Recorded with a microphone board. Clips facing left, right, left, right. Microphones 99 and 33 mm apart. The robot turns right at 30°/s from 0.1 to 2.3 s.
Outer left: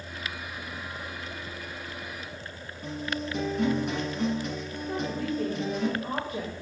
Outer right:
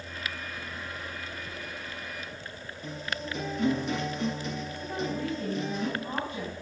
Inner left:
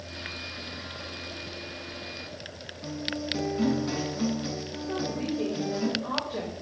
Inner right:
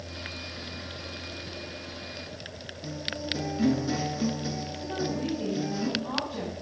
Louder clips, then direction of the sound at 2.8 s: Outer left 4 dB, inner left 2 dB; 50° left (ahead or behind).